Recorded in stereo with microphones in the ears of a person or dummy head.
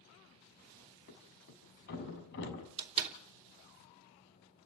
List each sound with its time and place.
1.1 s a thud: 60° left (ahead or behind), 5 m
2.8 s a door slam: 35° right (ahead or behind), 3 m